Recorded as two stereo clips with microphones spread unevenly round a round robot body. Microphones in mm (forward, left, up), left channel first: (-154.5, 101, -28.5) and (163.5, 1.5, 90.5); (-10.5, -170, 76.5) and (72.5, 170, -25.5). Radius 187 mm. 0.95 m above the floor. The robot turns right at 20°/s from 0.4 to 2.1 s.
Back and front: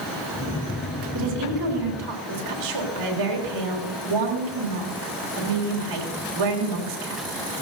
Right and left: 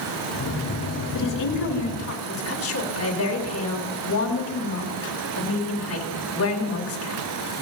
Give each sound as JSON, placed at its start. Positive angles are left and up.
{"t": 1.1, "sound": "a woman speaking", "azimuth_deg": -70, "distance_m": 3.5}